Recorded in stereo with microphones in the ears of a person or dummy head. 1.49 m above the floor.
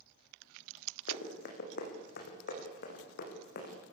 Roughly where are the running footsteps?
Left.